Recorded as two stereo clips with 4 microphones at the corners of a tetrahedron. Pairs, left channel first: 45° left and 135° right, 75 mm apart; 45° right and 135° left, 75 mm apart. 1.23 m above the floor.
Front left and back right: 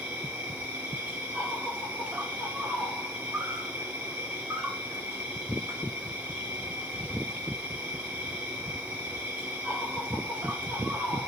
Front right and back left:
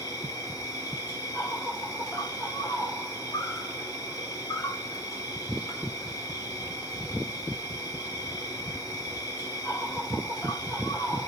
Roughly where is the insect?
Right.